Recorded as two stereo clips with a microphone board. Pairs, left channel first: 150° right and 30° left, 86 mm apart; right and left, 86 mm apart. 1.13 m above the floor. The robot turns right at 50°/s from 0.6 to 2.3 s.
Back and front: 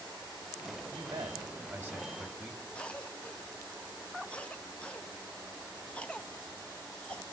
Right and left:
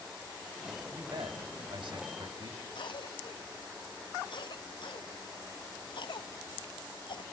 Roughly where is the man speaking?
Ahead left.